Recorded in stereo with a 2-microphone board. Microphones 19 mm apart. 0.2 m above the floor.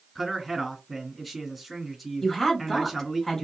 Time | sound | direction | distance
0.1 | a man speaking | 5° right (ahead or behind) | 2.5 m
2.2 | a woman speaking | 15° left (ahead or behind) | 3 m